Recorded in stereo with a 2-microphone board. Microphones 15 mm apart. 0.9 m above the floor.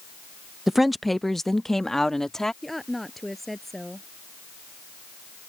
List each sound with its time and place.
0.7 s a woman speaking: 20° right (ahead or behind); by 2.5 s 35° left (ahead or behind)
2.6 s a woman speaking: 10° left (ahead or behind)